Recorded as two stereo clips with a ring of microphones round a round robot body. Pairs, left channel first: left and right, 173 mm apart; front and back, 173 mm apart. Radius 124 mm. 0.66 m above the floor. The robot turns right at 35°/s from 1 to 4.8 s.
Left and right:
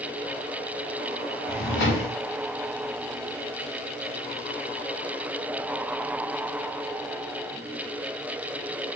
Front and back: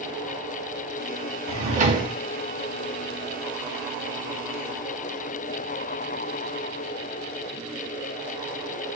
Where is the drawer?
125° left, 1.2 m; by 2.1 s 145° left, 1.2 m.